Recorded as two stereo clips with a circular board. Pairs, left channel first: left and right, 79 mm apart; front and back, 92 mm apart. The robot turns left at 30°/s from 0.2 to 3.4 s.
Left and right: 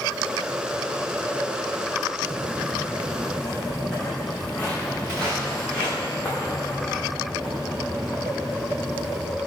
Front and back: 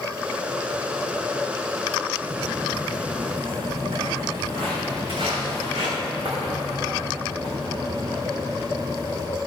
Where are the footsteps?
145° right, 2 m; by 9.2 s 160° left, 6.5 m.